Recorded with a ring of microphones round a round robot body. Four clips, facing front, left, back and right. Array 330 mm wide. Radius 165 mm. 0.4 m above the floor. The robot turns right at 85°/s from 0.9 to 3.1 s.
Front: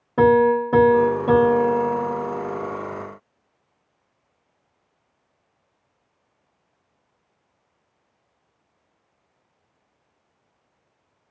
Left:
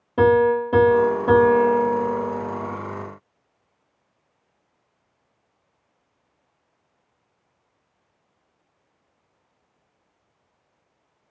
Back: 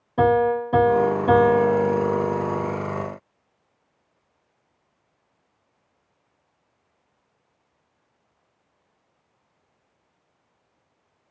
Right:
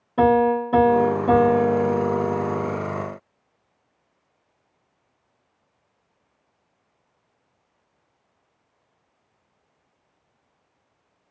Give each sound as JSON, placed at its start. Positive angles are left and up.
{"t": 0.2, "sound": "a piano", "azimuth_deg": 30, "distance_m": 1.3}